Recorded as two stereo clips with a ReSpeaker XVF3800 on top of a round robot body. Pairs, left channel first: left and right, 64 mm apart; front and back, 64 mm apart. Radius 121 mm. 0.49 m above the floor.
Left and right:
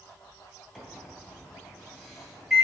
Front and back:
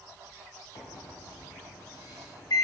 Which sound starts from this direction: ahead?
A microwave, at 0.8 s.